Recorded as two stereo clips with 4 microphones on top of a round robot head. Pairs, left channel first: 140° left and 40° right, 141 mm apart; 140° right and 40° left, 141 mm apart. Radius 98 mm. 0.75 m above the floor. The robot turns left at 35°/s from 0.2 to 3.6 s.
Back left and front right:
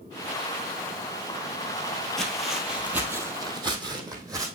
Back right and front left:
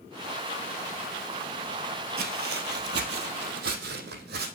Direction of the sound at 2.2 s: 55° left.